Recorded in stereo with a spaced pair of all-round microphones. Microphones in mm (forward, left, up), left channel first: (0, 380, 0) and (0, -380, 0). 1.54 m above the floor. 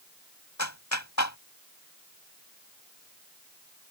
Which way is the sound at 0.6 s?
20° left (ahead or behind).